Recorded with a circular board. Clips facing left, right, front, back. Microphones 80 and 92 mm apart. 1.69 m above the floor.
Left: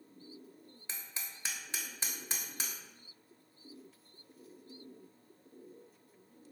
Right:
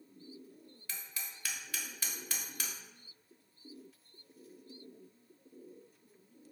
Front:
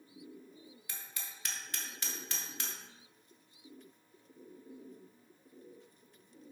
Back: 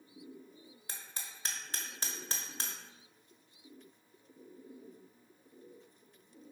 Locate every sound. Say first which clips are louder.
0.9 s hammering: even, back 2 dB; 140° left, 1.1 m